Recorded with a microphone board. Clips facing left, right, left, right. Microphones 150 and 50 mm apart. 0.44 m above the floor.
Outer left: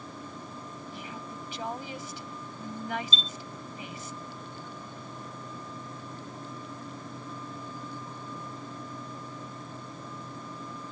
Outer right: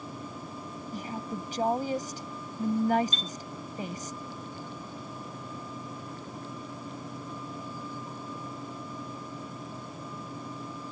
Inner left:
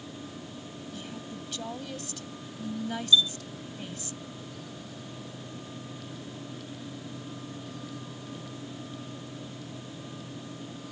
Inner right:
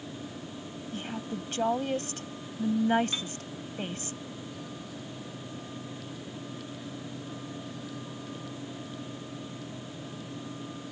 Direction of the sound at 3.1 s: 65° right (ahead or behind).